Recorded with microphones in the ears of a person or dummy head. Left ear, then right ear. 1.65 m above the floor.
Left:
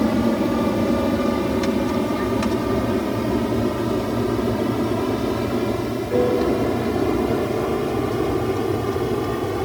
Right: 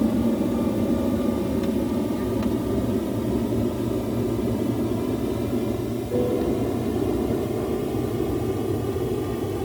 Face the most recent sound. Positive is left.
turn(degrees=50)  # may be behind; listen again after turning